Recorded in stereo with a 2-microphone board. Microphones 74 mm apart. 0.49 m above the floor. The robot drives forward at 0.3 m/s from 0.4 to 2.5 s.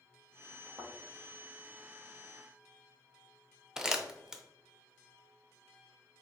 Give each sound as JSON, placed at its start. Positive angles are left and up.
{"t": 0.8, "sound": "a thud", "side_deg": -60, "distance_m": 2.0}
{"t": 3.8, "sound": "crumpling", "side_deg": -10, "distance_m": 0.5}